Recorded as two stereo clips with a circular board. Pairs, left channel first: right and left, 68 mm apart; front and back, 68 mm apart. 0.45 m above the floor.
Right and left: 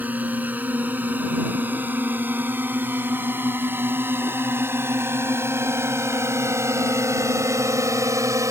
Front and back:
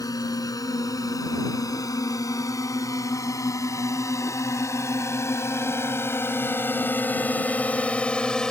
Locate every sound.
0.0 s a drone: 25° left; by 8.5 s 75° left